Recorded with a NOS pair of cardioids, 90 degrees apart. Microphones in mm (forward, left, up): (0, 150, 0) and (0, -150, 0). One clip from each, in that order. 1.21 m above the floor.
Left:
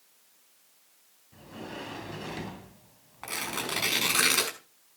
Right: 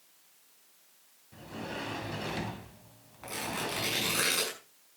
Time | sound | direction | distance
1.3 | a sliding door | 15° right | 2.5 m
3.2 | tearing paper | 50° left | 6 m